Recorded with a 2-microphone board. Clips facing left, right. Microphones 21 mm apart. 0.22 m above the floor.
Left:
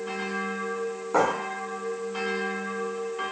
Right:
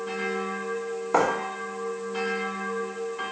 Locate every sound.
1.1 s writing: 25° right (ahead or behind), 0.9 m